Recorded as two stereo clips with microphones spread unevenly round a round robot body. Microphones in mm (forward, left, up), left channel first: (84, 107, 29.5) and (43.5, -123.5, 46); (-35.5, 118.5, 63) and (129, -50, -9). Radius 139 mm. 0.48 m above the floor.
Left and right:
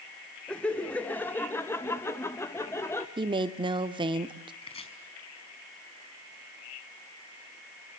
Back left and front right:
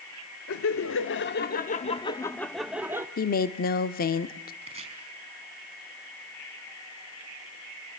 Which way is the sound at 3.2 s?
165° right.